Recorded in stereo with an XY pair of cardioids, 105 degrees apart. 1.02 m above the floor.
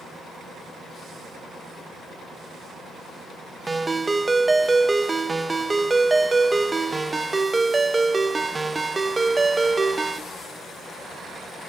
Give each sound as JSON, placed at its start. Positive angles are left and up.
{"t": 3.7, "sound": "a ringtone", "azimuth_deg": -20, "distance_m": 0.7}